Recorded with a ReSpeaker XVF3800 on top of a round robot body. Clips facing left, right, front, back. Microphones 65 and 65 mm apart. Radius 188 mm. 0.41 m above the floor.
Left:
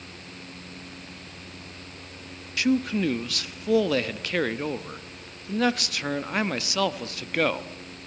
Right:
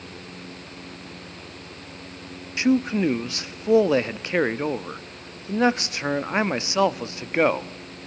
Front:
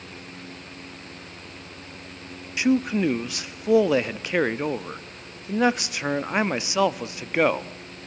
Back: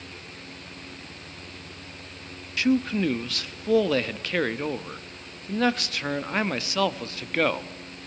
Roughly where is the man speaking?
Ahead right.